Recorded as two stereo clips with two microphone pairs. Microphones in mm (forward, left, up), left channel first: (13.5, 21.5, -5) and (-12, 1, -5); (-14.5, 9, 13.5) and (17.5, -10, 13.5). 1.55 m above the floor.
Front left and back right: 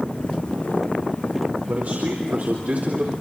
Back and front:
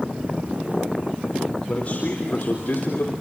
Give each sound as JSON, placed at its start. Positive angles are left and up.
{"t": 1.7, "sound": "a man speaking", "azimuth_deg": -155, "distance_m": 4.5}